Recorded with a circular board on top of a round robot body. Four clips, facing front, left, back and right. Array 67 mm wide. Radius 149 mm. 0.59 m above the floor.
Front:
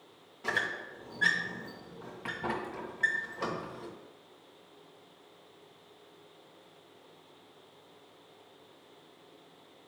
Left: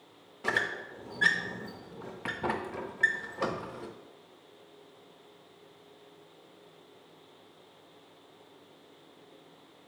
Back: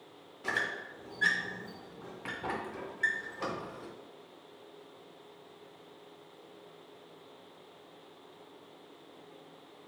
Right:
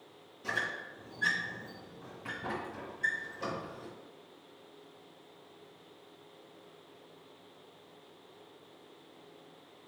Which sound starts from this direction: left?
A squeak, at 0.4 s.